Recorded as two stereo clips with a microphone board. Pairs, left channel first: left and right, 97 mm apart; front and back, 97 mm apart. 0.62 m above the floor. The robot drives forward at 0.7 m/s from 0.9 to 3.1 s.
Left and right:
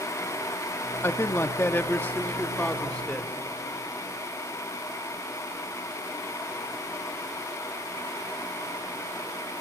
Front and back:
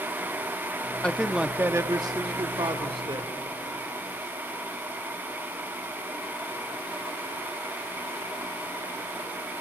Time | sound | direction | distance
1.0 | a man speaking | 65° left | 0.7 m